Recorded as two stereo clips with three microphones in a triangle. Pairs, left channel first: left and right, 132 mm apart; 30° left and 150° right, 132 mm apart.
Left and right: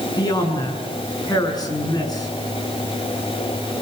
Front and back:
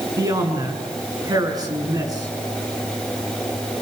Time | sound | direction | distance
0.2 | a man speaking | 150° left | 7 m